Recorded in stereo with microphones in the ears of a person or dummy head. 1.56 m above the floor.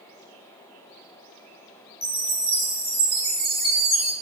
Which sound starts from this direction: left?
A chime, at 2.0 s.